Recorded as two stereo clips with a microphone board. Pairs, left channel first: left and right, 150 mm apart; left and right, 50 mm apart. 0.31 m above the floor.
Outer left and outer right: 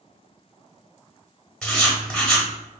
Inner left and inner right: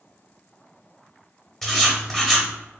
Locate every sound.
1.6 s writing: 5° left (ahead or behind), 1.1 m